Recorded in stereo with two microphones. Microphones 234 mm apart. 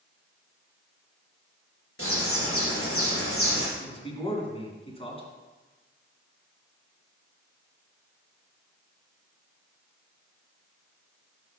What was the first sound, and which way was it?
A bird, 70° left (ahead or behind).